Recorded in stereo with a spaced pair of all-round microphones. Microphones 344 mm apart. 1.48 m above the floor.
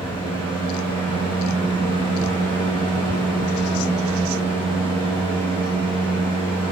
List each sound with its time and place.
0.0 s a fan: 15° left (ahead or behind), 1.8 m